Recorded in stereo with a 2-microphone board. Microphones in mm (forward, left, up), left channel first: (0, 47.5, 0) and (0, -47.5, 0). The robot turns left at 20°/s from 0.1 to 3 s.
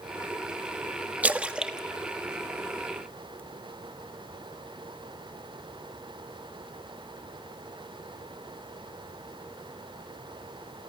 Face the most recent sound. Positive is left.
turn(degrees=15)  # may be behind; listen again after turning